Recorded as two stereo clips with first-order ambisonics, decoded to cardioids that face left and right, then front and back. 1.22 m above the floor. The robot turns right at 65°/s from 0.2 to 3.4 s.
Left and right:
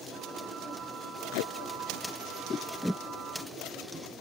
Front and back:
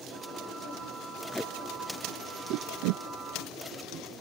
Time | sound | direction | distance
1.3 | tape being pulled | 80° left | ?